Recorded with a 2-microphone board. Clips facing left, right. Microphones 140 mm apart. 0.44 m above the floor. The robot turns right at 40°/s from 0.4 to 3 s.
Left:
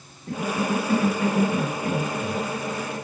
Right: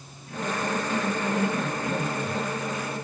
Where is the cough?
90° left, 2.5 m; by 2.4 s 170° left, 2.5 m.